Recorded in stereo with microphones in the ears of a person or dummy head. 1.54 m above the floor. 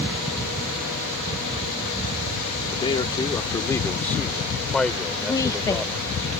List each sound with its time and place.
2.7 s a man speaking: 25° left (ahead or behind); by 6.2 s 10° right (ahead or behind)
5.2 s a woman speaking: 20° left (ahead or behind)